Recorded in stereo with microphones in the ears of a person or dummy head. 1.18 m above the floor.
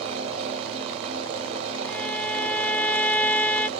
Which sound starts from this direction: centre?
A violin, at 1.9 s.